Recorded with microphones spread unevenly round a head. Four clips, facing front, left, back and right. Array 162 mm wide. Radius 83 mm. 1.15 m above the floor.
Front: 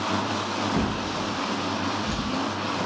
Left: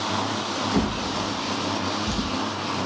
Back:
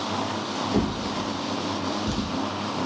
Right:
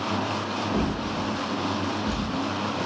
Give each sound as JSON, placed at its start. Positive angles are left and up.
{"t": 0.7, "sound": "a drawer", "azimuth_deg": 165, "distance_m": 1.0}